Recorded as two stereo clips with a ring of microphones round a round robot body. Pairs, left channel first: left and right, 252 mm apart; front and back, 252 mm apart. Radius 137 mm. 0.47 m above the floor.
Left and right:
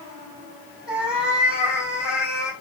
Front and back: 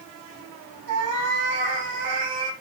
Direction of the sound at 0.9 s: 175° right.